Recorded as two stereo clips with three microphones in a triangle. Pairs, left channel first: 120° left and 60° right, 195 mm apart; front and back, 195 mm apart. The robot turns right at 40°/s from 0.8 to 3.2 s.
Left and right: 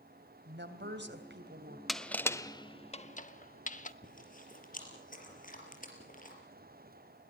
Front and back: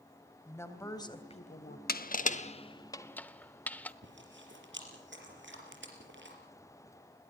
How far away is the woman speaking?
About 2.5 m.